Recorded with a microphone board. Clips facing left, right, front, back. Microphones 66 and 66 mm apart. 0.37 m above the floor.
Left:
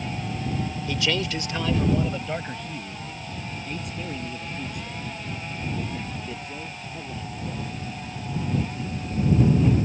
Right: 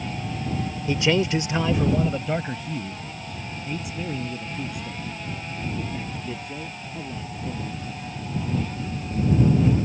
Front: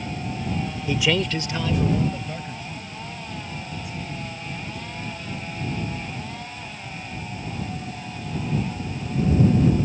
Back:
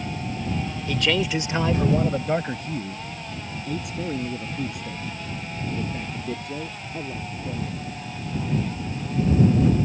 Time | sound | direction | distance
0.9 | a man speaking | 50° right | ?